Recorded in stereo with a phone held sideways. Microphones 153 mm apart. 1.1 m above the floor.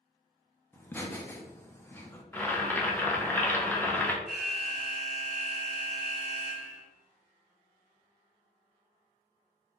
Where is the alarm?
Centre (ahead or behind), 2 m.